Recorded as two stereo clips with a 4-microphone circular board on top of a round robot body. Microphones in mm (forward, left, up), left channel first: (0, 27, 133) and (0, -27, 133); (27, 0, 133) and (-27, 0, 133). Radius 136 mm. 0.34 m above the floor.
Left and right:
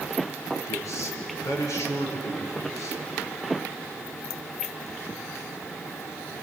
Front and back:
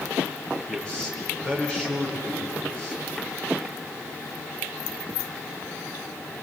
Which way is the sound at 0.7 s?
80° left.